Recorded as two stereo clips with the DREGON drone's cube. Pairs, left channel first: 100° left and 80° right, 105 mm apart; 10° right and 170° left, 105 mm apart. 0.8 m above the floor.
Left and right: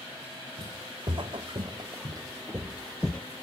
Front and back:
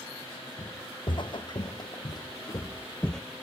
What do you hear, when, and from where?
0.6 s footsteps: 50° right, 2.5 m; by 3.2 s 65° left, 0.8 m